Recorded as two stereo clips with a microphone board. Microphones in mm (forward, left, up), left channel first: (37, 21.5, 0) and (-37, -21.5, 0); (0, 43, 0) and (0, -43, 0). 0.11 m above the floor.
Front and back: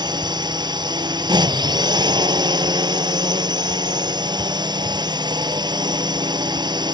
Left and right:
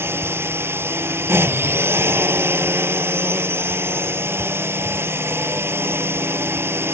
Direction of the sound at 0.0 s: 145° right.